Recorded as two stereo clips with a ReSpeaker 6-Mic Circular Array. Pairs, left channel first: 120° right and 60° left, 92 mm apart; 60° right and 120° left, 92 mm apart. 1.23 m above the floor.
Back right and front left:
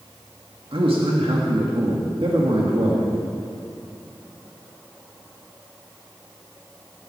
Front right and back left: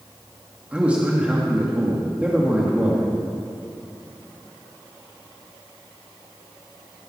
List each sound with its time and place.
0.7 s a man speaking: 45° left, 2 m